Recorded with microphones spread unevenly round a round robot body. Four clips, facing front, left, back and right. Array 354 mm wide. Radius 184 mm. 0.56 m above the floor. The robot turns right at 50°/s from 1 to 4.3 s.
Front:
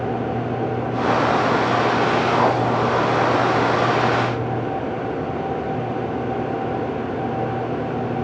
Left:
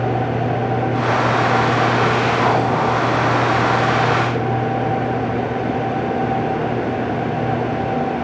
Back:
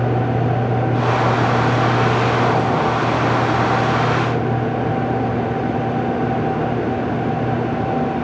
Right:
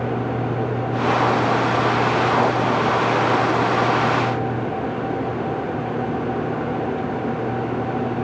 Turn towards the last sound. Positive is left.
No sound to turn to.